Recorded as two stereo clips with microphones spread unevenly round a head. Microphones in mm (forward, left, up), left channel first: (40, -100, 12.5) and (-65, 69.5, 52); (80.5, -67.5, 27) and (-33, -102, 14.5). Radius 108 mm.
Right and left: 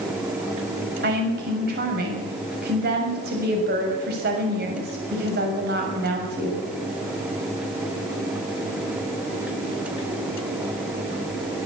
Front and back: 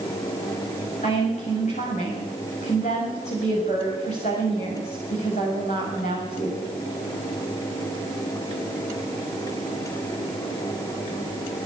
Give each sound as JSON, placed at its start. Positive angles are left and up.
{"t": 1.0, "sound": "a woman speaking", "azimuth_deg": 75, "distance_m": 6.5}